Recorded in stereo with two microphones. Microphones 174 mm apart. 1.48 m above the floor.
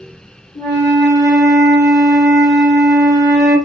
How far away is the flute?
About 2 m.